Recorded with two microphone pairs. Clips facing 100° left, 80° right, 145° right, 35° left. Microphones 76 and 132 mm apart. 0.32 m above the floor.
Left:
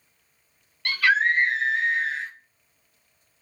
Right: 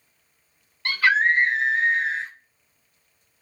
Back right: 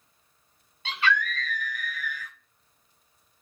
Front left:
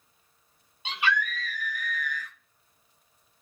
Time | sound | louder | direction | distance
0.8 | a scream | right 1 dB, back right 1 dB | 25° right | 1.4 m